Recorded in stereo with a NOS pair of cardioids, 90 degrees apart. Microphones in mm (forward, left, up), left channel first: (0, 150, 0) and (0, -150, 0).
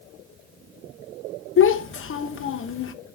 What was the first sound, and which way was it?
A child speaking, 45° left.